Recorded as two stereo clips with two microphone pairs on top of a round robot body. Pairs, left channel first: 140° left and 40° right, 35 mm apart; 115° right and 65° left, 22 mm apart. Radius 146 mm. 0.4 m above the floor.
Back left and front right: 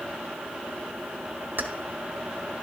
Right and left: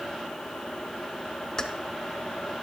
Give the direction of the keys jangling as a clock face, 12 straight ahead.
2 o'clock.